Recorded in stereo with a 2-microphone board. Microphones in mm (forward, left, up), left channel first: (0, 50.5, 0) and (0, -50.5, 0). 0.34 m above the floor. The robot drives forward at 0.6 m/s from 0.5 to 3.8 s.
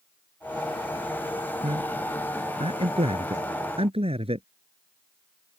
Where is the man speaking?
80° right; by 4.5 s 75° right (ahead or behind).